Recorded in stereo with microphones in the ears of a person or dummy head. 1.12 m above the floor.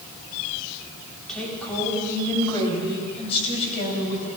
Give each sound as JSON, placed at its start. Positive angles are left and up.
{"t": 1.3, "sound": "a woman speaking", "side_deg": 5, "distance_m": 3.5}